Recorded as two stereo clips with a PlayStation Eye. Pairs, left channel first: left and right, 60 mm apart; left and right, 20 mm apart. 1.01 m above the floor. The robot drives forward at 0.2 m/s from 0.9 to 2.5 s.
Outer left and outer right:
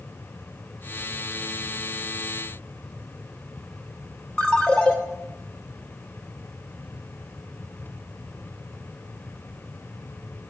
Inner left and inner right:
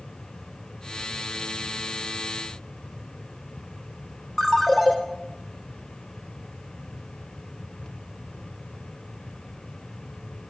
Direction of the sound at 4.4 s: 15° left (ahead or behind).